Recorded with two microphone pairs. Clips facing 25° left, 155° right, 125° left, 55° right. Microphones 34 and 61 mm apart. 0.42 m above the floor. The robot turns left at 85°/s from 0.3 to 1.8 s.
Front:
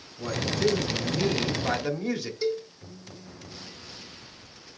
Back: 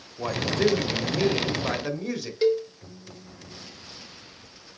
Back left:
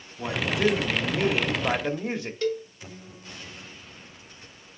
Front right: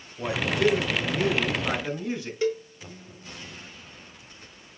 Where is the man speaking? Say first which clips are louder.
Back 3 dB, front right 1 dB; 125° right, 1.5 m; by 2.3 s 105° left, 1.5 m.